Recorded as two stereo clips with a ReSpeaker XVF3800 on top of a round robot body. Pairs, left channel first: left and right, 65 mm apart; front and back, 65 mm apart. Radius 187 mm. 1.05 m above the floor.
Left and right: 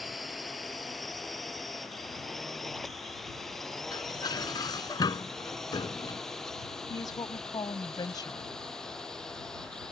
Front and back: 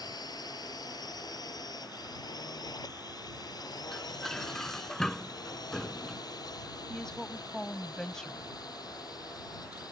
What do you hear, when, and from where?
0.0 s a drone: straight ahead; by 9.9 s 10° left
3.9 s dishes clattering: 85° left
6.9 s a woman speaking: 80° left